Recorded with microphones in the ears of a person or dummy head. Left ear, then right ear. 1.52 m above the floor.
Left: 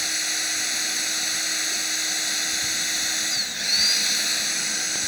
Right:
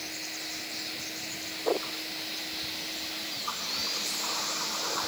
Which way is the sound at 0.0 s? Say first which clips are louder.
Left 12 dB; 60° left (ahead or behind).